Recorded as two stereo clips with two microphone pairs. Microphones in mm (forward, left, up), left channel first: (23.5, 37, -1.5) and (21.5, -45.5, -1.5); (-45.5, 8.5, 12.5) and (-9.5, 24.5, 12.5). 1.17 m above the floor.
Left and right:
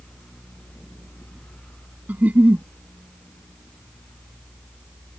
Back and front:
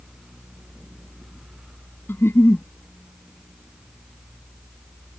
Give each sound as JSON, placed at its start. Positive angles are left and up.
{"t": 2.1, "sound": "a giggle", "azimuth_deg": -160}